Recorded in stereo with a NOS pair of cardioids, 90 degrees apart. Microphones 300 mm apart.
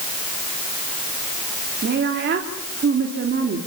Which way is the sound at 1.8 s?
40° right.